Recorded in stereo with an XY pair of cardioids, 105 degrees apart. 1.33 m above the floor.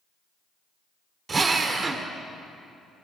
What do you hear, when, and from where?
1.3 s a drill: 35° right, 2.5 m